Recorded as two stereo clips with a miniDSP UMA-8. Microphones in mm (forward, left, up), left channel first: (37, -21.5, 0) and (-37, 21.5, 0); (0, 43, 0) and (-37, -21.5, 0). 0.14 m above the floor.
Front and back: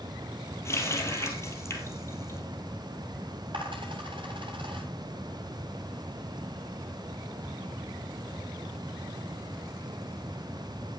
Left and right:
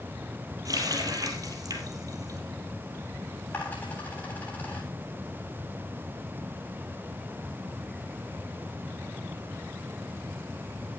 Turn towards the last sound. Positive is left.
turn(degrees=125)